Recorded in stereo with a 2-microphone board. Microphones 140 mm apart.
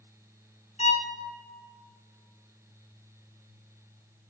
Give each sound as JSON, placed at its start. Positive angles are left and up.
{"t": 0.8, "sound": "a violin", "side_deg": 50, "distance_m": 1.2}